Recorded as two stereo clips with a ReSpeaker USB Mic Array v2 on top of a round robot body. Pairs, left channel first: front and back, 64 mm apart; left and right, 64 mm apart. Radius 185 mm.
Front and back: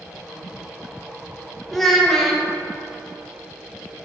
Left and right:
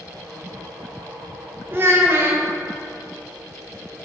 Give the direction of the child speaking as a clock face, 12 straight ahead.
3 o'clock.